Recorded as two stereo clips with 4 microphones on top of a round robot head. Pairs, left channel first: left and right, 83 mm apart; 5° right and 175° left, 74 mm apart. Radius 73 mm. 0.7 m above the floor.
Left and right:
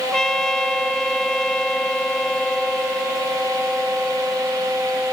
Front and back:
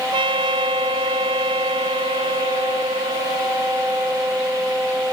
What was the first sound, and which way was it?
A trumpet, 175° left.